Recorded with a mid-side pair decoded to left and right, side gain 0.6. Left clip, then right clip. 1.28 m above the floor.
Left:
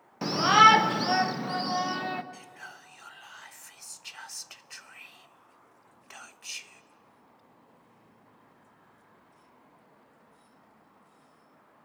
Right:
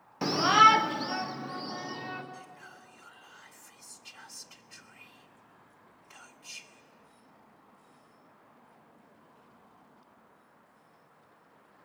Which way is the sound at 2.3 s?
55° left.